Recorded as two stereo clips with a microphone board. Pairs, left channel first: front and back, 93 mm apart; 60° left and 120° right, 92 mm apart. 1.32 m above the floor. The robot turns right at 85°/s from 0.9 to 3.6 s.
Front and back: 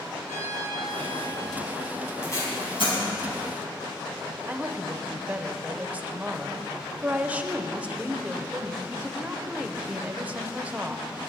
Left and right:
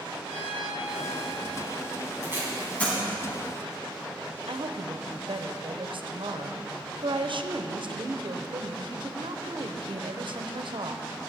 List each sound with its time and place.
0.2 s a violin: 115° right, 3 m; by 1.7 s 50° right, 3 m
2.2 s tape being pulled: 65° right, 4.5 m; by 3.0 s straight ahead, 4.5 m
4.5 s a woman speaking: 105° right, 0.9 m